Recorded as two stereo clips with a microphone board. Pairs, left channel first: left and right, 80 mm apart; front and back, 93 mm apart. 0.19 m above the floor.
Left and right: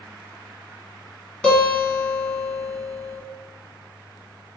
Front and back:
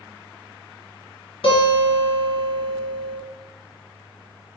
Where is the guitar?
10° left, 2 m.